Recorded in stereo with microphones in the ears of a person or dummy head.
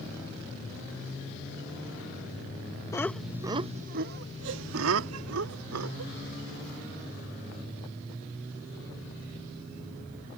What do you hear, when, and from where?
2.9 s laughter: 15° left (ahead or behind); by 6.1 s 90° right